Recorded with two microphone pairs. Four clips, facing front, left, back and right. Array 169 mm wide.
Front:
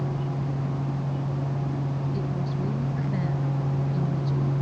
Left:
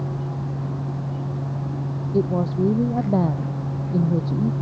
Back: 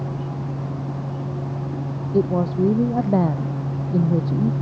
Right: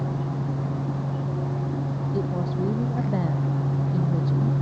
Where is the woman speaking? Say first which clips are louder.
Left 8 dB, back 11 dB; 150° left.